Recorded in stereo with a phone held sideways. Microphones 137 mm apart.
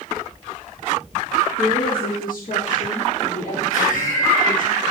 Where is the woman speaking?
85° left, 3 m; by 4.7 s 65° left (ahead or behind), 6 m.